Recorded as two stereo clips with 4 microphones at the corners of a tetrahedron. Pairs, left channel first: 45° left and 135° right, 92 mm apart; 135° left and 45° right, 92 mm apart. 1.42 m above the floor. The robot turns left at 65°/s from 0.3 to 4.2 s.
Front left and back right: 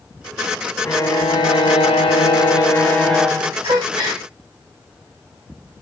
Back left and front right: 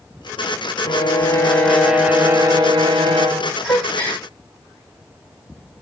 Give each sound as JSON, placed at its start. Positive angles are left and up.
{"t": 0.8, "sound": "a violin", "azimuth_deg": 110, "distance_m": 0.8}
{"t": 3.6, "sound": "a gasp", "azimuth_deg": -125, "distance_m": 1.6}